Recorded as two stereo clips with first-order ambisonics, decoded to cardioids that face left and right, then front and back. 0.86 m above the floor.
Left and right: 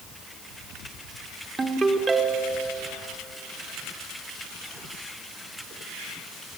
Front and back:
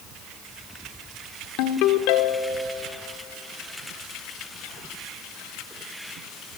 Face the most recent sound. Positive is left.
turn(degrees=-15)